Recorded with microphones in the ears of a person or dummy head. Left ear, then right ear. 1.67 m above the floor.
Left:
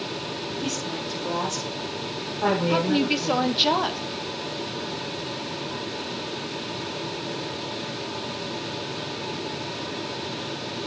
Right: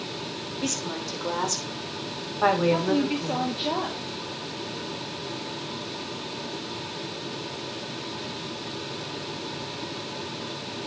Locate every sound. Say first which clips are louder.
0.6 s a woman speaking: right 2 dB; 65° right (ahead or behind), 6 m
2.7 s a woman speaking: left 2 dB; 35° left (ahead or behind), 1.8 m